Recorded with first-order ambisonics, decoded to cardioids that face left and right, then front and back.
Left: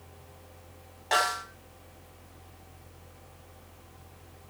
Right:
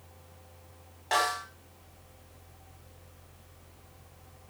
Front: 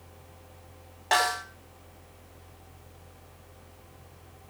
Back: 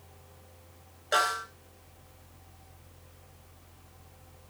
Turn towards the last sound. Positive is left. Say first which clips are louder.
# left 1 dB, front 2 dB
turn(degrees=0)